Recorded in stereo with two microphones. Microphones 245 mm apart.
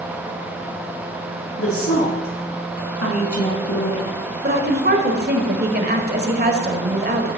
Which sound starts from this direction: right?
A woman speaking, at 4.4 s.